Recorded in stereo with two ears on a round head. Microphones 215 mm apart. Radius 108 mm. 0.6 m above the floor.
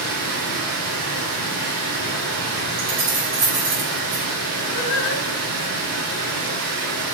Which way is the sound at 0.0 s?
85° right.